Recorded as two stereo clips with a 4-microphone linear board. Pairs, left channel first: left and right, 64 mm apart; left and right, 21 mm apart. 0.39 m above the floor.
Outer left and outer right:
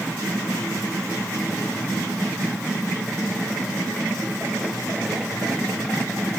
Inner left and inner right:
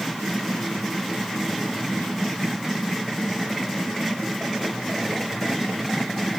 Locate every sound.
Only background noise.